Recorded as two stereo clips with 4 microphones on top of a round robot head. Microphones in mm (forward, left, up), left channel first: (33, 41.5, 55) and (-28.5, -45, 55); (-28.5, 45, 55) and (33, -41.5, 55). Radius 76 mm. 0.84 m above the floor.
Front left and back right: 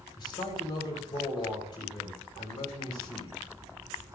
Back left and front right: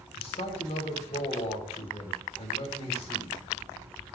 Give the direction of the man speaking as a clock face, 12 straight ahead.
9 o'clock.